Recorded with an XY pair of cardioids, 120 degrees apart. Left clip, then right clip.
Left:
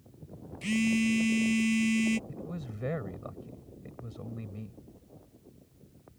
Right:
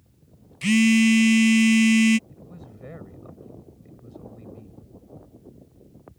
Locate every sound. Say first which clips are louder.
0.6 s a phone buzzing: right 10 dB; 60° right
2.3 s a man speaking: left 4 dB; 40° left